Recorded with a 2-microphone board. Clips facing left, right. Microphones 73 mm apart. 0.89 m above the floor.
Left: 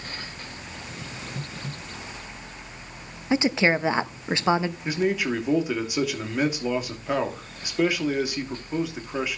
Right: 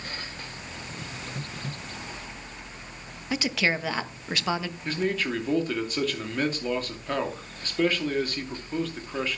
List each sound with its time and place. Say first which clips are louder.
3.3 s a woman speaking: left 5 dB; 25° left (ahead or behind), 0.8 m
4.8 s a man speaking: left 2 dB; 10° left (ahead or behind), 2.5 m